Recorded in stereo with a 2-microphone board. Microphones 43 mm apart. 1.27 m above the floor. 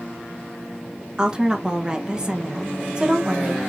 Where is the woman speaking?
20° right (ahead or behind), 1.1 m.